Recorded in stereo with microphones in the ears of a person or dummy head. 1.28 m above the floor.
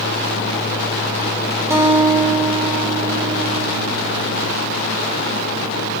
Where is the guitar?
5° right (ahead or behind), 1.5 m.